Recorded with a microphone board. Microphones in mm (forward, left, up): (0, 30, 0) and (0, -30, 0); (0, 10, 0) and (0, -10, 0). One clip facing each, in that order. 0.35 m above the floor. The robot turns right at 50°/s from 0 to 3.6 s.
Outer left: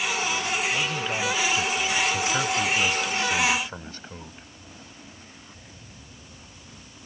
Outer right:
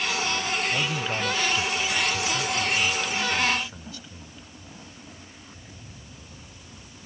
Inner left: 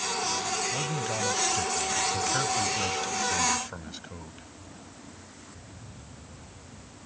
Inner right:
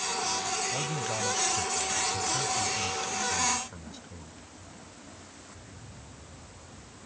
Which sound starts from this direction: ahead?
A man speaking, at 0.7 s.